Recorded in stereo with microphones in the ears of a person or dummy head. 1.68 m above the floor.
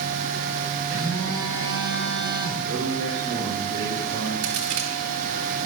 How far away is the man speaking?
About 2.5 m.